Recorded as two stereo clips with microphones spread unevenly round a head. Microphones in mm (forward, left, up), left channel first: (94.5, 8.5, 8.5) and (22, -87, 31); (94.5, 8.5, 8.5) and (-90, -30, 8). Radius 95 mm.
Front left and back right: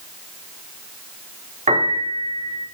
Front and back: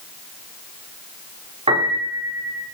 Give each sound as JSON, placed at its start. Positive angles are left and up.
{"t": 1.7, "sound": "a piano", "azimuth_deg": -105, "distance_m": 4.0}